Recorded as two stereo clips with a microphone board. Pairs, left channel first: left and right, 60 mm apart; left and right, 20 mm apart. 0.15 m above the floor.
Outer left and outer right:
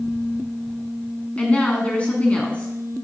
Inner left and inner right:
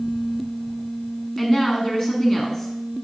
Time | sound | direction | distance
1.4 | a woman speaking | 20° left (ahead or behind) | 1.1 m